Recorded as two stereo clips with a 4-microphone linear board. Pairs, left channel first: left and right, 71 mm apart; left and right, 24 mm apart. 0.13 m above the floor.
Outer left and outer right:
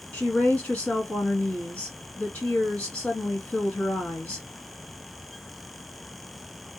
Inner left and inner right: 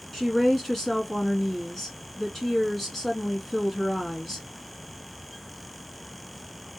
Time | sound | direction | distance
0.1 | a woman speaking | 20° left (ahead or behind) | 1.7 m